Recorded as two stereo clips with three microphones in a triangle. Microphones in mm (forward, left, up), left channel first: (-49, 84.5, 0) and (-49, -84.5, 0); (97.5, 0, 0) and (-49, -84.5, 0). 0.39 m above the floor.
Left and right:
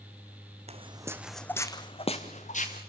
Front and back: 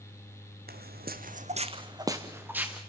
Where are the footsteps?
140° right, 1.3 m; by 2.8 s 125° left, 2.5 m.